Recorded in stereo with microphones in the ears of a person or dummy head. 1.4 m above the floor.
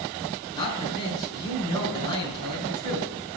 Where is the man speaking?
30° left (ahead or behind), 3.5 m.